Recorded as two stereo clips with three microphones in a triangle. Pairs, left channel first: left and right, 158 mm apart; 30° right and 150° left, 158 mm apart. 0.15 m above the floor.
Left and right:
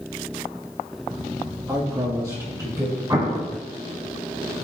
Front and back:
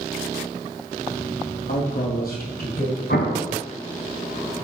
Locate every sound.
1.7 s a man speaking: 25° right, 4 m; by 3.0 s 20° right, 4.5 m
3.1 s an explosion: 20° right, 3 m